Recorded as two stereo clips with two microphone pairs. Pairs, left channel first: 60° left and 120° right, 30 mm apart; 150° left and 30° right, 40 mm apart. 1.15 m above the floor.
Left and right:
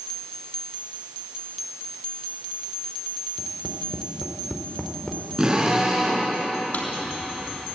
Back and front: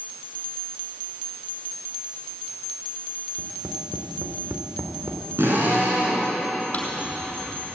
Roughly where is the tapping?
Ahead.